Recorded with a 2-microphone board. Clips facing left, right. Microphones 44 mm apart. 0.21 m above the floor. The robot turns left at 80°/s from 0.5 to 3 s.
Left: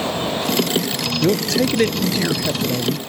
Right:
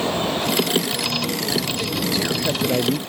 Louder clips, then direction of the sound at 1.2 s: Left 6 dB; 100° left.